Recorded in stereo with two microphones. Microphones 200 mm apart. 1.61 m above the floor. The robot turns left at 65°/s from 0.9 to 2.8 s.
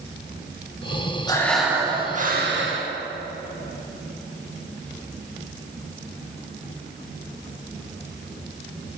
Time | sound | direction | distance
1.3 | breathing | 20° left | 2 m